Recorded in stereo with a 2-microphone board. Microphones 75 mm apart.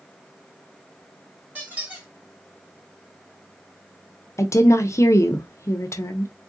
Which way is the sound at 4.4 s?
40° left (ahead or behind).